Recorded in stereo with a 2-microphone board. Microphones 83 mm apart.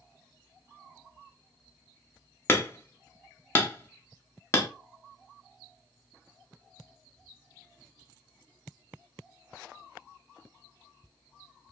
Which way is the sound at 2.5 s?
30° left (ahead or behind).